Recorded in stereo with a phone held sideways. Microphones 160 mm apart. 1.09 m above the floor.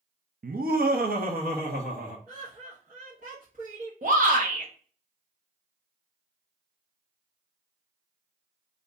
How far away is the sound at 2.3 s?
About 1.3 m.